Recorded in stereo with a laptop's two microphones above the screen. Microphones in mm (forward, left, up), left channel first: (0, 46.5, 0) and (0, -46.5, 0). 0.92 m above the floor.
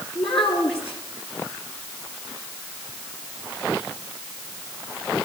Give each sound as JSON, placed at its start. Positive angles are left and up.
{"t": 0.1, "sound": "a child speaking", "side_deg": 80, "distance_m": 7.5}